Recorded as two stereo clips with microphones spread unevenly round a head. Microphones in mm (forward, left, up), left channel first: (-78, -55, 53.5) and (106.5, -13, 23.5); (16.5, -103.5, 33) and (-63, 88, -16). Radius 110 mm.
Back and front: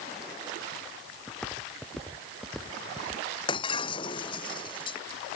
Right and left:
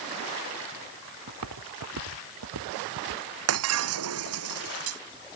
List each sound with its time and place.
1.3 s footsteps: 105° left; by 3.2 s 100° left
3.5 s breaking glass: 125° left